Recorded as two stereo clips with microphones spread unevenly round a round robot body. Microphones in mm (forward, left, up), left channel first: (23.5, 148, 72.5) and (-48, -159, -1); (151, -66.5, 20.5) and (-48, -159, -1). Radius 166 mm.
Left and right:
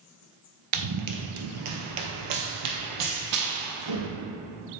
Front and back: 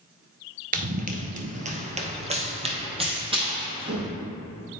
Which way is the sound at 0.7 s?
120° right.